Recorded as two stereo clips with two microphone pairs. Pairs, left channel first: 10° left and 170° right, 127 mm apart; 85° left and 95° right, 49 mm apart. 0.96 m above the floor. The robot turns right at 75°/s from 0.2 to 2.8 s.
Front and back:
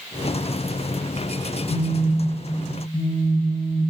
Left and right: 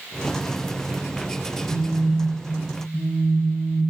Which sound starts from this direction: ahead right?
A phone buzzing, at 1.7 s.